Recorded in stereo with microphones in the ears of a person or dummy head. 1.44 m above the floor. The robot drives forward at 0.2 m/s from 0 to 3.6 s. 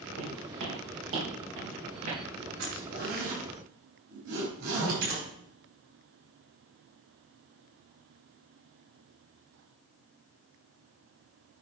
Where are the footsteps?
60° right (ahead or behind), 3 m.